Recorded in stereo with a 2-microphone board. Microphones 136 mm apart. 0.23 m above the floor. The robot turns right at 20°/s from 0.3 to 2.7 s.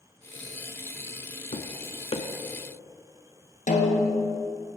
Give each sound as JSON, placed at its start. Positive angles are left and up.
{"t": 1.5, "sound": "tapping", "side_deg": 55, "distance_m": 0.6}
{"t": 3.7, "sound": "a snare drum", "side_deg": 75, "distance_m": 1.2}